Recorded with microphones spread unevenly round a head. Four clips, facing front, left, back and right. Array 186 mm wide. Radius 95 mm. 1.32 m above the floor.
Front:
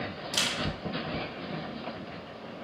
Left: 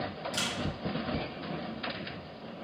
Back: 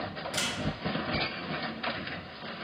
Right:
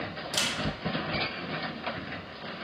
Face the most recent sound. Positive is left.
turn(degrees=-25)